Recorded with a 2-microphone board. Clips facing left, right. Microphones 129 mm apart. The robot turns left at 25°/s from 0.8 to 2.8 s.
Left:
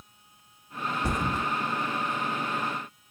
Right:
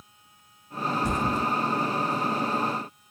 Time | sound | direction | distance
1.0 | a thud | 60° left (ahead or behind) | 1.9 m